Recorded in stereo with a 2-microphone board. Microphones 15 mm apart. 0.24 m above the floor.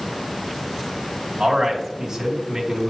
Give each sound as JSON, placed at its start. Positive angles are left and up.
{"t": 1.4, "sound": "a man speaking", "side_deg": -40, "distance_m": 2.0}